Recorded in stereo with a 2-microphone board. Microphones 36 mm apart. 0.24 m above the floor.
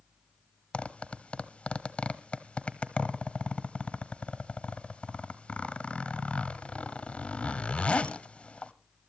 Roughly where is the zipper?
Left.